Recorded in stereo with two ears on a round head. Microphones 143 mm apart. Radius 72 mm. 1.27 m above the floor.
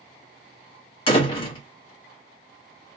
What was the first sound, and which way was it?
A door slam, 35° left (ahead or behind).